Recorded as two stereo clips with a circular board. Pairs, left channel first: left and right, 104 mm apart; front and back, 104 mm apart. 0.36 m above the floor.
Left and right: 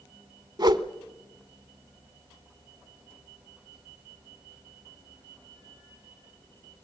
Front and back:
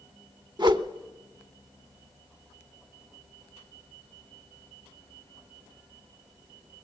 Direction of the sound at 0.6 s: 135° right.